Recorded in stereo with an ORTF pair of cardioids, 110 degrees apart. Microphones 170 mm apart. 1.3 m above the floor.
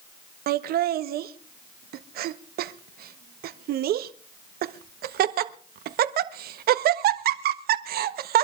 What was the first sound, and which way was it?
Laughter, 65° right.